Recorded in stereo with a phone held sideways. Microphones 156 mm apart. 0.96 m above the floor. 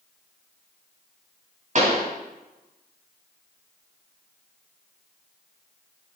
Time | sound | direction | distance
1.8 | a pop | 50° right (ahead or behind) | 2.5 m